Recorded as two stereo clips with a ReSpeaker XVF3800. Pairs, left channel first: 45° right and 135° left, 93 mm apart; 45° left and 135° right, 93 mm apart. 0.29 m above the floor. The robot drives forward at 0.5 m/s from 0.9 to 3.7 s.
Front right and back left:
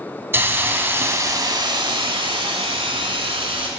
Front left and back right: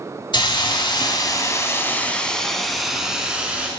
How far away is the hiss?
About 0.8 m.